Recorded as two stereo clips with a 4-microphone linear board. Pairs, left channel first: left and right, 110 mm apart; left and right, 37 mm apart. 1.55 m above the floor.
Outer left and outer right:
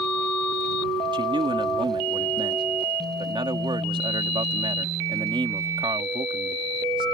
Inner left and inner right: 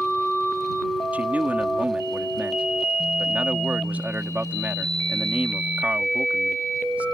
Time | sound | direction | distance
1.1 | a man speaking | 50° right (ahead or behind) | ?